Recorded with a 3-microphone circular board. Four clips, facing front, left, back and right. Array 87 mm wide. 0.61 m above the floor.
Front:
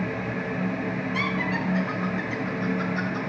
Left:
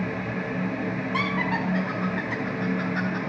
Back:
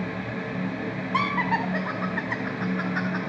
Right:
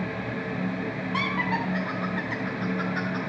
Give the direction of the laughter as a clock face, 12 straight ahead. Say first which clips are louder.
Even, back 6 dB; 6 o'clock.